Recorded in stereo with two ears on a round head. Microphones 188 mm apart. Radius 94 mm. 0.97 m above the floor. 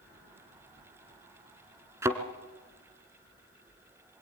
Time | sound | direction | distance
2.0 | a thud | 15° right (ahead or behind) | 1.2 m